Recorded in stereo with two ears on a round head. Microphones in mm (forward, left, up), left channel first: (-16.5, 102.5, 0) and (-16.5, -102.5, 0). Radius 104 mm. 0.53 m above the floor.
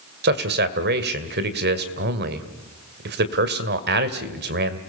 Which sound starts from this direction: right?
A man speaking, at 0.2 s.